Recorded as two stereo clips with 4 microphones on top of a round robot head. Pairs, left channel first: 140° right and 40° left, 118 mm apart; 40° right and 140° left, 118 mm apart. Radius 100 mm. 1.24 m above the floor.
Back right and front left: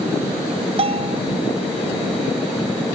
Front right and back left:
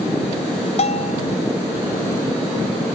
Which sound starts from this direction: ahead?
A bell, at 0.8 s.